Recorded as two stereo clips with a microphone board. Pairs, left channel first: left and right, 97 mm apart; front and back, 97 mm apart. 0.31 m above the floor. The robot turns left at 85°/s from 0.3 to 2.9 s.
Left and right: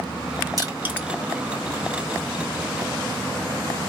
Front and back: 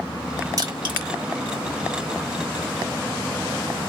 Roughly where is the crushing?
Behind right.